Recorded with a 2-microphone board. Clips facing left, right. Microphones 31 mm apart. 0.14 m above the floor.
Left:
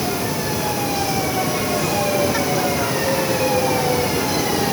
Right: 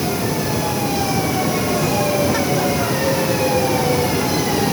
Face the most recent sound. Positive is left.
No sound to turn to.